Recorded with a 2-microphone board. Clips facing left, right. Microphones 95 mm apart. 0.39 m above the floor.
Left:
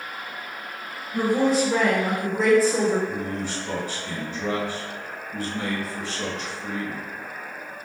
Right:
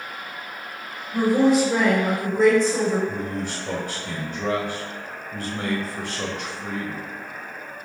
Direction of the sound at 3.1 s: 55° right (ahead or behind).